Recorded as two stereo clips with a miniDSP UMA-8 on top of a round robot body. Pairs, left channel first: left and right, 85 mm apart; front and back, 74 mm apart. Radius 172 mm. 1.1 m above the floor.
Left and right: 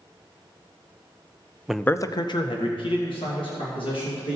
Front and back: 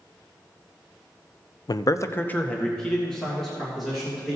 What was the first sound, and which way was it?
A man speaking, 10° right.